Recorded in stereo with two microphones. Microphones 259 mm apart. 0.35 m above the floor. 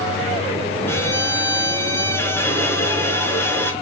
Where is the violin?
10° left (ahead or behind), 3.5 m.